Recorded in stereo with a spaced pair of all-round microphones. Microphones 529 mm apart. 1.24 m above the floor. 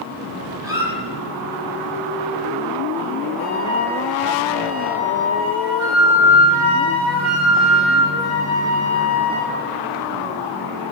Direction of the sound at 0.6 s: 5° right (ahead or behind).